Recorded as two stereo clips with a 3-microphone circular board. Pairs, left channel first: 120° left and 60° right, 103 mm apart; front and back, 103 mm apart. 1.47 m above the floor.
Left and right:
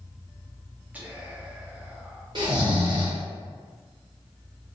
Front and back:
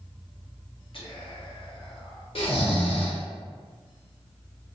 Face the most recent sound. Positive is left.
turn(degrees=-20)